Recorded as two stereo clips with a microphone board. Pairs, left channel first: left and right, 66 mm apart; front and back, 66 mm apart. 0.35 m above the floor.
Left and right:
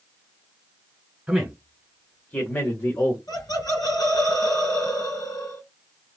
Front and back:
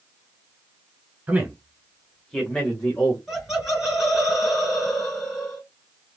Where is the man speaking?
160° right, 1.3 m; by 3.2 s 60° left, 1.6 m.